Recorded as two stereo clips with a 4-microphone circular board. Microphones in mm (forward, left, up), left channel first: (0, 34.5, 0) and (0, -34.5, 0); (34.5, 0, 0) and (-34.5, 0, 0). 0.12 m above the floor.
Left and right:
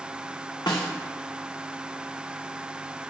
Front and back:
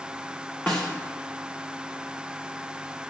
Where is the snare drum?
70° left, 1.7 m.